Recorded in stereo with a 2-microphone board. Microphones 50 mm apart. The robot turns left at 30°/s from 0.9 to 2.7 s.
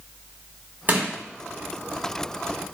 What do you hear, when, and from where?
0.9 s crushing: 40° right (ahead or behind), 1.4 m; by 1.1 s 45° right (ahead or behind), 1.4 m